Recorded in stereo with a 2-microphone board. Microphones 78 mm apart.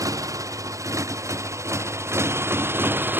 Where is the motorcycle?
50° right (ahead or behind); by 3.2 s 25° right (ahead or behind).